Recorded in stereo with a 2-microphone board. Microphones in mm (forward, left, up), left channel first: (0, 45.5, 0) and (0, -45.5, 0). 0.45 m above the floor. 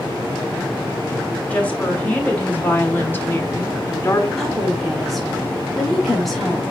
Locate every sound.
1.5 s a woman speaking: 15° left (ahead or behind), 2.5 m; by 4.3 s 30° left (ahead or behind), 1.3 m
4.4 s a woman speaking: centre (ahead or behind), 1.7 m